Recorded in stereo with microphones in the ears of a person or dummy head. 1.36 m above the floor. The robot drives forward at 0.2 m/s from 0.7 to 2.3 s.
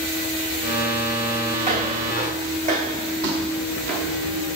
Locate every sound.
1.6 s footsteps: 30° right (ahead or behind), 3 m; by 4.4 s 40° right (ahead or behind), 1.9 m